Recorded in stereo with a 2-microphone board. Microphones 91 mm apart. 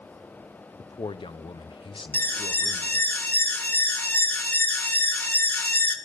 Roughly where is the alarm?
Centre.